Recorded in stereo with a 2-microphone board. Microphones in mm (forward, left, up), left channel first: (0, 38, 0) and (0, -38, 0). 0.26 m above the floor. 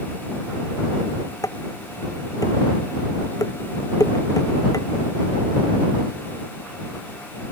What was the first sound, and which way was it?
Dishes clattering, 50° left (ahead or behind).